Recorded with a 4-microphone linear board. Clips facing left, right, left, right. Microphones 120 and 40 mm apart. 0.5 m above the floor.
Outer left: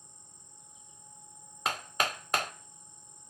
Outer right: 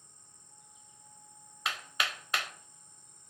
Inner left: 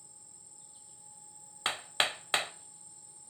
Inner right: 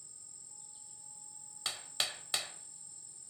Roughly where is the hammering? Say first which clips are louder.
Outer left 4 dB, inner left 7 dB; left.